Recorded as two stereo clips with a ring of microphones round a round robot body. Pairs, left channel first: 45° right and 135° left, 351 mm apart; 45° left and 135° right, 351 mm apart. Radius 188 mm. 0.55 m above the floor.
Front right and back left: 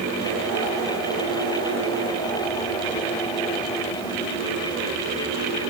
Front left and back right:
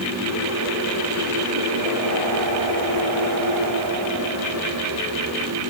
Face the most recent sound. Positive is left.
No sound to turn to.